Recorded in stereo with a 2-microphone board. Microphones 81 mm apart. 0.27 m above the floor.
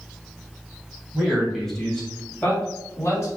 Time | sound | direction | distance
1.1 | a man speaking | 5° right (ahead or behind) | 2.0 m